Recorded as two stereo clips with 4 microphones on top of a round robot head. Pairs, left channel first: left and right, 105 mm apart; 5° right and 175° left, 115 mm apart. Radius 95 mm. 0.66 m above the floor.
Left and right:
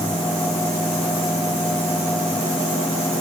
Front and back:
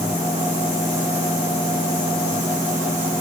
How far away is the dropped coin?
I don't hear a dropped coin.